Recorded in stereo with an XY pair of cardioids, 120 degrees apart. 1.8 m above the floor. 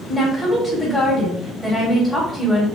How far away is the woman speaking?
About 1.7 m.